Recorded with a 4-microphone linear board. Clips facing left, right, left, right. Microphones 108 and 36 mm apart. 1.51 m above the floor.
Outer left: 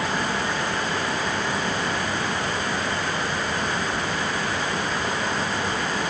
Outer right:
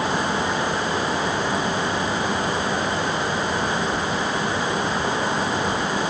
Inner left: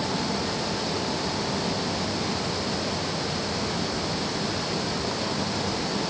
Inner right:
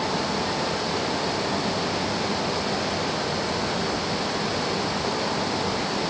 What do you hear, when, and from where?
Only background noise.